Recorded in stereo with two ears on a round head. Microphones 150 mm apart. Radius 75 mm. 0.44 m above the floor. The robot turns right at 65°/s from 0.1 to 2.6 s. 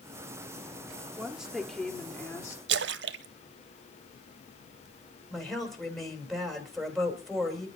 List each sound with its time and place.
1.1 s a woman speaking: 10° right (ahead or behind), 1.4 m; by 2.6 s 20° left (ahead or behind), 1.4 m
2.7 s a splash: 75° right (ahead or behind), 0.5 m
5.3 s a woman speaking: centre (ahead or behind), 2.5 m